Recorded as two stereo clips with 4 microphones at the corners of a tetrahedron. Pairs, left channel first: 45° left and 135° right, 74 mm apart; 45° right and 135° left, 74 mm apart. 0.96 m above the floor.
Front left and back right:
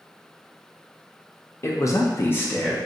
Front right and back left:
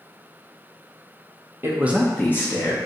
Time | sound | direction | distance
1.6 | a man speaking | 85° left | 0.7 m